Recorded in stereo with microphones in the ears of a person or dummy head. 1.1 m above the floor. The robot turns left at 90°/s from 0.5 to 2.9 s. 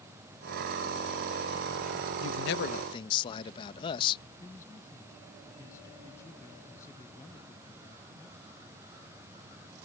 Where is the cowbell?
No cowbell in this recording.